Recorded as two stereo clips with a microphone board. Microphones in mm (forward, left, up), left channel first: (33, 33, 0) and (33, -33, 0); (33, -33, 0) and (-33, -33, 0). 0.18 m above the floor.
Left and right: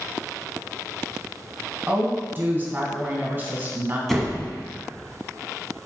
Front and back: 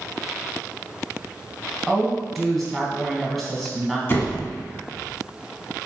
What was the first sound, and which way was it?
A woman speaking, 90° right.